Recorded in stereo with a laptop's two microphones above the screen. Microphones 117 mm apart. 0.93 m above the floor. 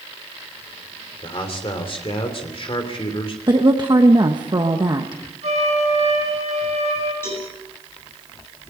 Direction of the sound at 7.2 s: 20° left (ahead or behind).